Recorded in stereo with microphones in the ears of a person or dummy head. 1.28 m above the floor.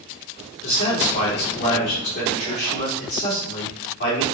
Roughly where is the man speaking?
Left.